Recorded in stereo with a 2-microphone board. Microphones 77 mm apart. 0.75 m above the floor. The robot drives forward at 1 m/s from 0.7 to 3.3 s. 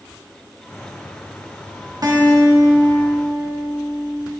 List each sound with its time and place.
2.0 s a guitar: 55° right (ahead or behind), 1.5 m; by 4.2 s 40° right (ahead or behind), 2.0 m